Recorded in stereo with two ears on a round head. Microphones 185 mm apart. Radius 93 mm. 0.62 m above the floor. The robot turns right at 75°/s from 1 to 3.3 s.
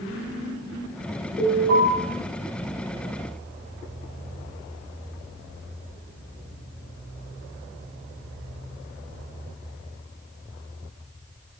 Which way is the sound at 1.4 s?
140° left.